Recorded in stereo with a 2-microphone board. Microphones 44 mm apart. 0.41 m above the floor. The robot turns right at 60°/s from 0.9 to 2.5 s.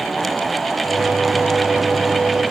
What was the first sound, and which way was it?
Only background noise.